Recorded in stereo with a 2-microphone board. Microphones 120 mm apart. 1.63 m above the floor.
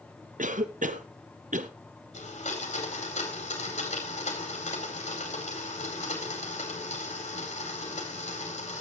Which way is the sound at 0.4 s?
85° right.